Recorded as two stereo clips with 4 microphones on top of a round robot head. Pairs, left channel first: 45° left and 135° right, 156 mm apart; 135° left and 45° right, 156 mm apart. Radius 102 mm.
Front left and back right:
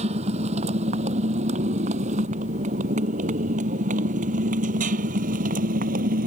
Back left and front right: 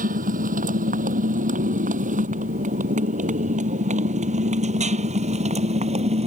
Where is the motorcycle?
80° right; by 6.3 s 95° right.